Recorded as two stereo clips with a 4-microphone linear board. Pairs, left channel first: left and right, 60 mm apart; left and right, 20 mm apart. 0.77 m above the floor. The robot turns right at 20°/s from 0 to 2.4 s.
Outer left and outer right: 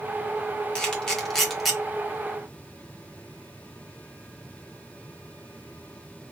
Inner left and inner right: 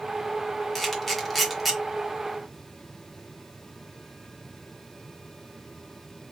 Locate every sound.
0.8 s a camera shutter: 15° left (ahead or behind), 0.9 m; by 1.8 s centre (ahead or behind), 0.9 m